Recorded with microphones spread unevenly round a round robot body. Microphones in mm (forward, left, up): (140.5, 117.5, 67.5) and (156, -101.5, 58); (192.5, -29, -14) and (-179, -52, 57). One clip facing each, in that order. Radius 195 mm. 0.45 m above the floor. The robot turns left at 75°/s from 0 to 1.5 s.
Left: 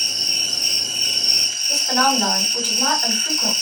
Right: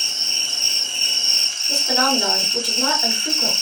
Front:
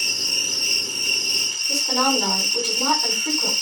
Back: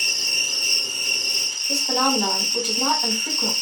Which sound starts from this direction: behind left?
An insect, at 0.0 s.